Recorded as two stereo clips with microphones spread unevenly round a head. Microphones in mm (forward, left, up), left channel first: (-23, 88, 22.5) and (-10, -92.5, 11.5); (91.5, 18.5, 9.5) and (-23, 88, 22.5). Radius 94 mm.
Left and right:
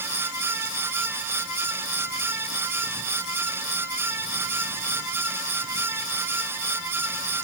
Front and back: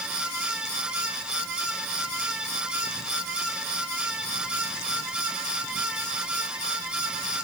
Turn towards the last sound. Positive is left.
No sound to turn to.